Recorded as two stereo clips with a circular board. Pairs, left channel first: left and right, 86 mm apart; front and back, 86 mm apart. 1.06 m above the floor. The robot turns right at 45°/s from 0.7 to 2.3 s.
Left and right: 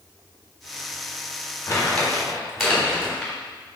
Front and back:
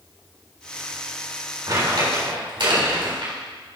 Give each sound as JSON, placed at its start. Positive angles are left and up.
{"t": 1.7, "sound": "crumpling", "azimuth_deg": 150, "distance_m": 3.5}